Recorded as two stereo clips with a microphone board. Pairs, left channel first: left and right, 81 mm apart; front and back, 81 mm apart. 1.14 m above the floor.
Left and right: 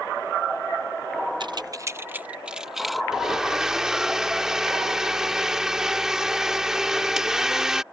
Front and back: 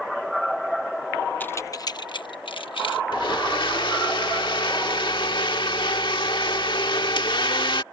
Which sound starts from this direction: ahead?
A blender, at 3.1 s.